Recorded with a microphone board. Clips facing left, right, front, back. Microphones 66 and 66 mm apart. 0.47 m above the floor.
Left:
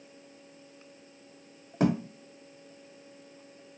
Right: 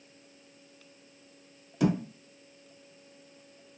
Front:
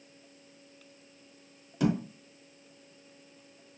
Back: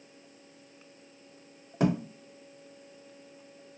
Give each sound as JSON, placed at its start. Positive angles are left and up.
{"t": 1.8, "sound": "a thud", "azimuth_deg": 130, "distance_m": 0.8}